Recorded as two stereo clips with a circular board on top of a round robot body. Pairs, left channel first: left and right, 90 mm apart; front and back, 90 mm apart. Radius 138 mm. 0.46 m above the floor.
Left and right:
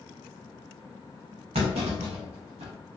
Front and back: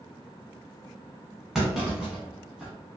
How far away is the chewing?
I don't hear chewing.